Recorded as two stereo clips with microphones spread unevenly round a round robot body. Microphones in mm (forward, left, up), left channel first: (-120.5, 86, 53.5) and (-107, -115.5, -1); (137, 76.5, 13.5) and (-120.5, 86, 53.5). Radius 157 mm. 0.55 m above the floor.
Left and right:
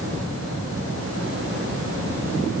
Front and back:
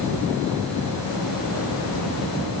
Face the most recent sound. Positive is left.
No sound to turn to.